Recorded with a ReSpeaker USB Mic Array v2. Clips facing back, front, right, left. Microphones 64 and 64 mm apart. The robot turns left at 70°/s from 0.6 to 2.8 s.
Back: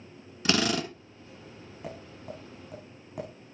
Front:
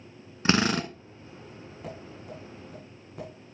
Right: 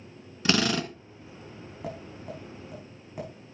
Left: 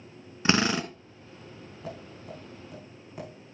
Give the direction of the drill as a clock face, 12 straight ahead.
11 o'clock.